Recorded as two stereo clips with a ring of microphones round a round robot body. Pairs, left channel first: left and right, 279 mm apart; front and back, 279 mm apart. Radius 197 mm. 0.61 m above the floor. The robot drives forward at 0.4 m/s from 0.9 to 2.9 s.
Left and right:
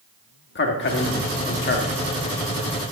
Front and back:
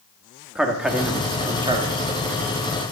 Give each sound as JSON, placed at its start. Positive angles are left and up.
{"t": 0.6, "sound": "a man speaking", "azimuth_deg": 95, "distance_m": 1.3}